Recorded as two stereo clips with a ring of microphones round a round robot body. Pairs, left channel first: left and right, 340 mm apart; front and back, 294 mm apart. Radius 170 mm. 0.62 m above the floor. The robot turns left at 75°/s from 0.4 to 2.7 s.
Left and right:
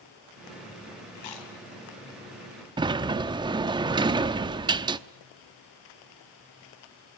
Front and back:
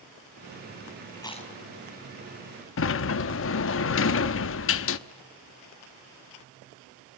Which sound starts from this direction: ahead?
A sliding door, at 2.8 s.